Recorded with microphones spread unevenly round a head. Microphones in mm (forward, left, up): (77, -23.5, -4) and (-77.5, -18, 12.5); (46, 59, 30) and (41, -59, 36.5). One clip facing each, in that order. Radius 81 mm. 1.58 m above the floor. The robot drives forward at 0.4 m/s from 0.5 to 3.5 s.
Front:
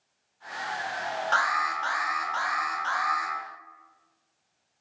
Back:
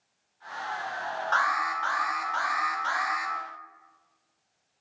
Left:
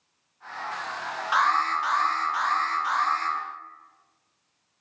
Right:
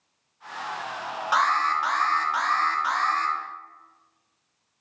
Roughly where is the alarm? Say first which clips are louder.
Even, right 1 dB; ahead right.